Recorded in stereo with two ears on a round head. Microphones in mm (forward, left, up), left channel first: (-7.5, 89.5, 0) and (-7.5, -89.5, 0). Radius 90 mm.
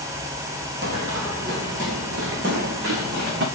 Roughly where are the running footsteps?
Right.